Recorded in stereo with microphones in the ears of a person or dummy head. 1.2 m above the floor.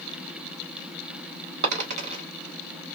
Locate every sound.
1.6 s a dropped coin: 45° right (ahead or behind), 1.2 m